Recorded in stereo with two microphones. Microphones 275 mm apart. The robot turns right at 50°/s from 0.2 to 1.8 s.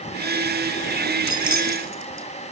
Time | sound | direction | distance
1.3 | keys jangling | 85° right | 2.5 m